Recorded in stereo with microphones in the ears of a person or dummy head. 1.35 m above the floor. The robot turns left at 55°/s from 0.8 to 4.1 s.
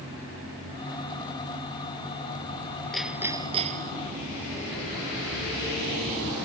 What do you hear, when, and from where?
2.9 s hammering: 5° left; by 4.0 s 50° right